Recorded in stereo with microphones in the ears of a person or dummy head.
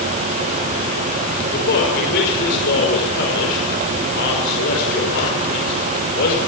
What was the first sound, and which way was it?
A man speaking, 55° left (ahead or behind).